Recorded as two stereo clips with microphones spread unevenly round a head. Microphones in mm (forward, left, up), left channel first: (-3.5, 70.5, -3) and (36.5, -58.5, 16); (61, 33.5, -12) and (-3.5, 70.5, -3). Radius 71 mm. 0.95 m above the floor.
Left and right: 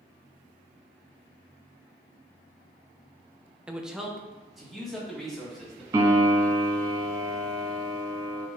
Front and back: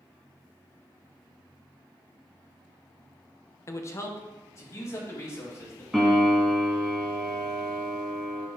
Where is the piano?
130° right, 1.3 m.